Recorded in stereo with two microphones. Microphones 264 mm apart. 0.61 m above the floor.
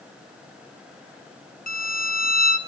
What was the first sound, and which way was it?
A violin, 30° left (ahead or behind).